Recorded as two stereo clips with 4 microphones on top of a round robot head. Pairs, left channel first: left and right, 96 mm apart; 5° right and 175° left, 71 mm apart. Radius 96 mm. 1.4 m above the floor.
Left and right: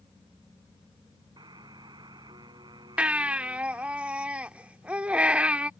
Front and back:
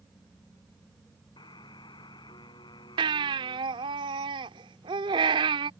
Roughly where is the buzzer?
Ahead right.